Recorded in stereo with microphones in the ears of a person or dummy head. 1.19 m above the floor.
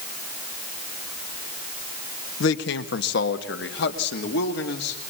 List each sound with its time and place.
2.4 s a man speaking: 65° left (ahead or behind), 1.2 m; by 5.0 s 60° left (ahead or behind), 3 m